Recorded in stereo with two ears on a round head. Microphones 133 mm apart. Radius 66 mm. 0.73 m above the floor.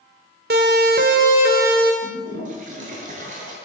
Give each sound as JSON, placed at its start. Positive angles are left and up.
{"t": 0.5, "sound": "a siren", "side_deg": -70, "distance_m": 4.0}
{"t": 2.0, "sound": "a toilet flushing", "side_deg": -55, "distance_m": 9.0}